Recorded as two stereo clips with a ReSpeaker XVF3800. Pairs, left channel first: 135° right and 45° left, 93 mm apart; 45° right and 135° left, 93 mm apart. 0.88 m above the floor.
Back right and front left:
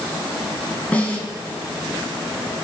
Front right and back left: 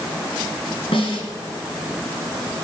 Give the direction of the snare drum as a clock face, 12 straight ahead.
2 o'clock.